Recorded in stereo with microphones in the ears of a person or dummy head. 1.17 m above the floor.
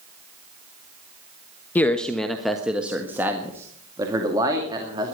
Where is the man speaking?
20° left (ahead or behind), 1.1 m; by 5.2 s 20° right (ahead or behind), 2.5 m.